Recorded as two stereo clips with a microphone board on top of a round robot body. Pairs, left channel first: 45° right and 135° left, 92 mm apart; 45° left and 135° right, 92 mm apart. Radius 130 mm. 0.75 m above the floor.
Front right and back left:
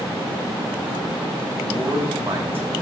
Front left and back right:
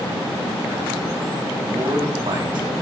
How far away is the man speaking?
About 2.5 m.